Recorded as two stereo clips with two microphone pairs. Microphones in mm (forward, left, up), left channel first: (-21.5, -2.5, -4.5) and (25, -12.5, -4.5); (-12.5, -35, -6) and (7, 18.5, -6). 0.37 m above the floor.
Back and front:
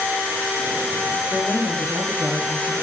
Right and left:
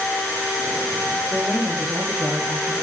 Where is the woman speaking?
135° left, 8 m; by 2.7 s 130° left, 8 m.